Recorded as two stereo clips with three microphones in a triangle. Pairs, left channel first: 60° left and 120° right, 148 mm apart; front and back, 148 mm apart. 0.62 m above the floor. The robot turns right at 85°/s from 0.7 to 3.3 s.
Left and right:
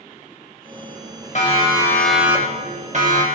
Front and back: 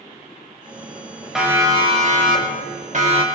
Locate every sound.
1.4 s a siren: 95° left, 4 m; by 3.2 s 130° right, 3 m